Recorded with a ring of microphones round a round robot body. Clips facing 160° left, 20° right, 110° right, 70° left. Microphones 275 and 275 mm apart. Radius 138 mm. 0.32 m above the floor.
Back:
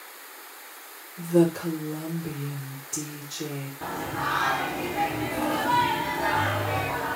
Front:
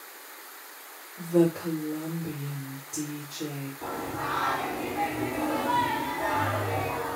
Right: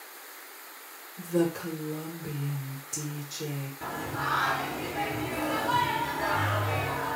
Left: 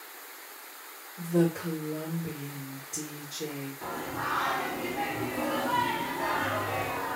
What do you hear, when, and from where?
1.2 s a woman speaking: 155° right, 1.0 m
3.8 s singing: 165° right, 0.8 m